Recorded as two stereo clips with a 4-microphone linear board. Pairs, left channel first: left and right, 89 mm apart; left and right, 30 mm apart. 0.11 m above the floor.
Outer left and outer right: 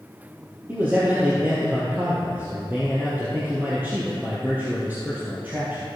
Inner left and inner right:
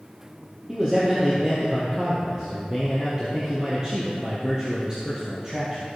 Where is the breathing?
No breathing in this recording.